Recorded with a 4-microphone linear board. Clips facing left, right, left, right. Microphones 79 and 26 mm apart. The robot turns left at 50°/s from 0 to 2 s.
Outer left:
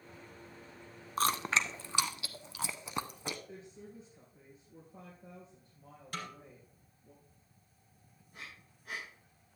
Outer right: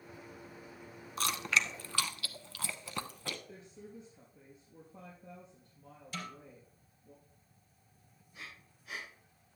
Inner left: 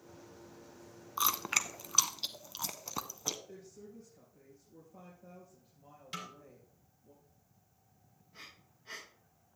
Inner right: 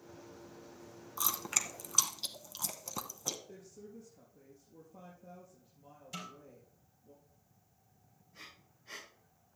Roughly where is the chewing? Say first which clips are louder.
Outer left 2 dB, inner left 4 dB; left.